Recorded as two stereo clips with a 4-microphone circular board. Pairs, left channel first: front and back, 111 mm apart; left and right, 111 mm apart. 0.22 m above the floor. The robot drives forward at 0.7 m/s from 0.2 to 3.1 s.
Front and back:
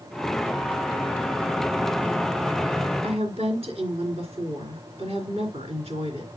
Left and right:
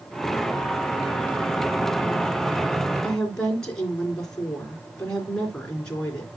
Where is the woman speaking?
170° left, 3.5 m.